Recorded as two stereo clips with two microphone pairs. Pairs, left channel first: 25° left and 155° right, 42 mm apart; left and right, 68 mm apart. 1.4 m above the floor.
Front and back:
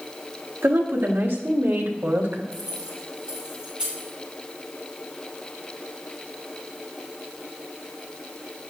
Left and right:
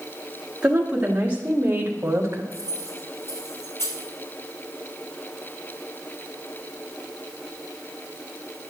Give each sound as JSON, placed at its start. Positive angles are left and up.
{"t": 0.6, "sound": "a woman speaking", "azimuth_deg": -165, "distance_m": 2.5}
{"t": 2.5, "sound": "keys jangling", "azimuth_deg": 135, "distance_m": 5.0}